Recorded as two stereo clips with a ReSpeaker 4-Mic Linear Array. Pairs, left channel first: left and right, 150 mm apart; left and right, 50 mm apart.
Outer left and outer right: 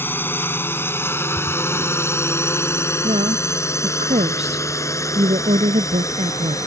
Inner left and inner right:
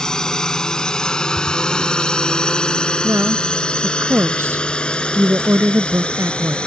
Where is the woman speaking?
50° right (ahead or behind).